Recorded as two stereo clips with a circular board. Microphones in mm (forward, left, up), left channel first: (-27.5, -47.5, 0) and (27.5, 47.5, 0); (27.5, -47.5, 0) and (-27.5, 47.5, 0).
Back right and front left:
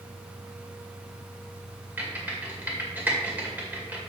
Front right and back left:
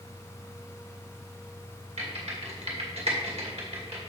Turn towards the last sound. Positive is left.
turn(degrees=135)